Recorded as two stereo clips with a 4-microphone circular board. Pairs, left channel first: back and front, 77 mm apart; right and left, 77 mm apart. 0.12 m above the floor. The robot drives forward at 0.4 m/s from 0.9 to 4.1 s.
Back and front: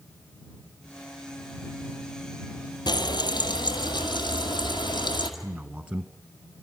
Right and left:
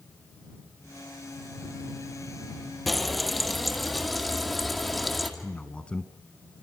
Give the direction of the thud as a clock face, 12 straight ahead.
I don't hear a thud.